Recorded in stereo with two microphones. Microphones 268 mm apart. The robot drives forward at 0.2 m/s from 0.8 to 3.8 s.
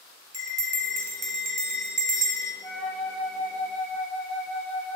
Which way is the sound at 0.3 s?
60° right (ahead or behind).